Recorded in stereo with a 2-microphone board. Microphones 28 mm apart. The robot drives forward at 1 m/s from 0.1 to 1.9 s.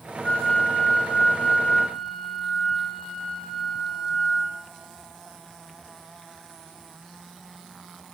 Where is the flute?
45° left (ahead or behind), 1.9 m; by 4.6 s 25° left (ahead or behind), 3 m.